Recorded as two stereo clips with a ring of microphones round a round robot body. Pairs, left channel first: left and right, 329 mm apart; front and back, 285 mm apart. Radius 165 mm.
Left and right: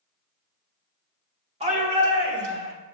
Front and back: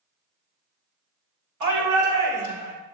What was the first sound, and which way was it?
A shout, 160° right.